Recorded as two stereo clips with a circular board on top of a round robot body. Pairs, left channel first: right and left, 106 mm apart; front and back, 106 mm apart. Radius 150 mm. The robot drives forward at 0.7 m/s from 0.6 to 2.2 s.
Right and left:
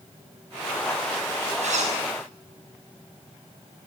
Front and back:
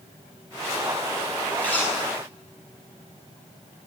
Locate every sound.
1.6 s a zipper: 80° left, 8.5 m